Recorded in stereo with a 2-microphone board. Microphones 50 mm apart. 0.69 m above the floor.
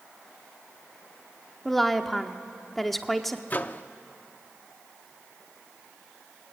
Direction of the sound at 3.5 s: 35° left (ahead or behind).